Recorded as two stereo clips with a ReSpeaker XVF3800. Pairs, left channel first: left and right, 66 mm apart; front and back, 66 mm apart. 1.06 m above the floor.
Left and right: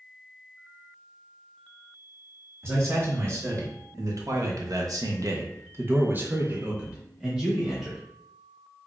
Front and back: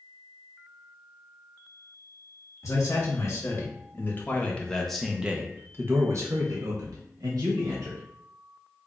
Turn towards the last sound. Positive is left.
turn(degrees=-175)